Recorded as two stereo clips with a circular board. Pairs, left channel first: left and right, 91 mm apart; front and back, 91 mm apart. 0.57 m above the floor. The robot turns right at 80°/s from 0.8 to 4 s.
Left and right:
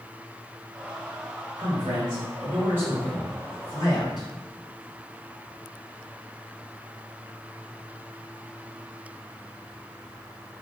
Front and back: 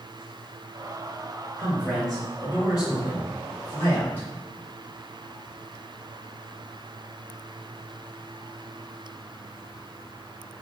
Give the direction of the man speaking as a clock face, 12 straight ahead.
4 o'clock.